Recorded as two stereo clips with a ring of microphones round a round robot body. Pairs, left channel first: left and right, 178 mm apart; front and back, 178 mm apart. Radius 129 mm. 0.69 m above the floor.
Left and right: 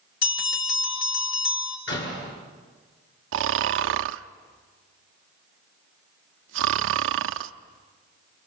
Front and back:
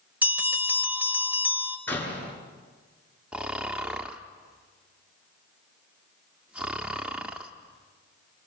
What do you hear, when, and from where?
0.2 s a bell: 100° left, 3 m
1.9 s a door slam: 80° left, 7.5 m
3.3 s snoring: 95° right, 0.5 m